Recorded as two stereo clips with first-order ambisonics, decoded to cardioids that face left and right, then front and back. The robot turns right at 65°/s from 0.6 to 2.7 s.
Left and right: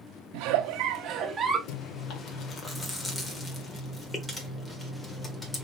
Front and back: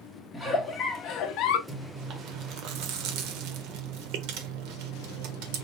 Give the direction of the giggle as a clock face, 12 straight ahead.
3 o'clock.